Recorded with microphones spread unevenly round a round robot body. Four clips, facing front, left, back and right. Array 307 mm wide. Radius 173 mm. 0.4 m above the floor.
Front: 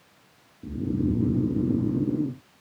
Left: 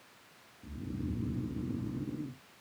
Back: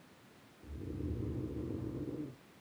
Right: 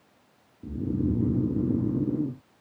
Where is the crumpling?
No crumpling in this recording.